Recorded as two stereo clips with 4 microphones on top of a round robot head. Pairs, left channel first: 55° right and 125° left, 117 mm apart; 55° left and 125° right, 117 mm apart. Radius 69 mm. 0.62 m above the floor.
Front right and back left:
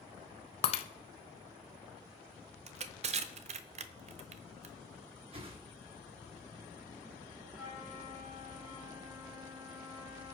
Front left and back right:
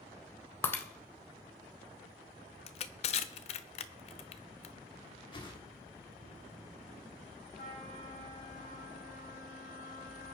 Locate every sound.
0.6 s breaking glass: 15° right, 0.7 m
2.7 s crushing: 90° left, 0.8 m
5.3 s a whoosh: 95° left, 2 m
7.5 s a flute: 45° left, 8 m